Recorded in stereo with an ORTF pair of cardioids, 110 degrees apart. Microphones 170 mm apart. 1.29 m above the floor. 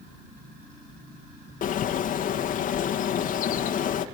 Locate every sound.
1.6 s a bird: 55° left, 1.6 m